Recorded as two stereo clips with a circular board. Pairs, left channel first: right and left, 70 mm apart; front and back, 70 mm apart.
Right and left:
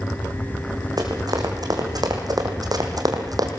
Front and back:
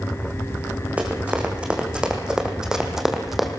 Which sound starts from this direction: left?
Running footsteps, at 1.0 s.